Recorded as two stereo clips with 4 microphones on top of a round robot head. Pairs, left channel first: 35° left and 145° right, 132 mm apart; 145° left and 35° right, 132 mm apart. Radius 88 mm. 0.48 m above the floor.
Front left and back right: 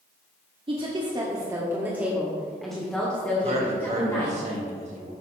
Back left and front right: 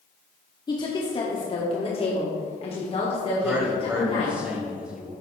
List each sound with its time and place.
0.7 s a woman speaking: 170° right, 1.5 m; by 4.4 s 100° left, 2.5 m
3.4 s a man speaking: 115° right, 3 m